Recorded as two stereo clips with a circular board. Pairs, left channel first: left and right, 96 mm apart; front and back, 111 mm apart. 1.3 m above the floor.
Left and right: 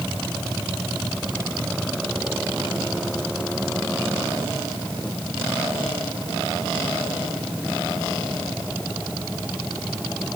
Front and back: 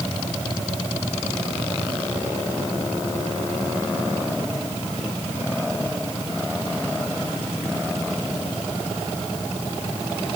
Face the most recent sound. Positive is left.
No sound to turn to.